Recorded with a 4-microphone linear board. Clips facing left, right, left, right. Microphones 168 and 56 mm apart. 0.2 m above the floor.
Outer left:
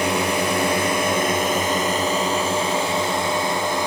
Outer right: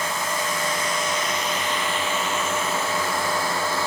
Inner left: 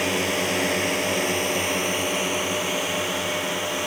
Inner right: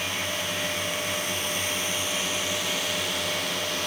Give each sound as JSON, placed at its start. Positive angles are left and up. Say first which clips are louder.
{"t": 0.0, "sound": "a drone", "louder": "outer left 7 dB, inner left 7 dB", "side_deg": 75}